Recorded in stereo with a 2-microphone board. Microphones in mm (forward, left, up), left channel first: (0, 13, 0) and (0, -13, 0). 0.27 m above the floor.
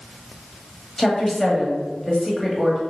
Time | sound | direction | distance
1.0 | a woman speaking | 15° left (ahead or behind) | 1.1 m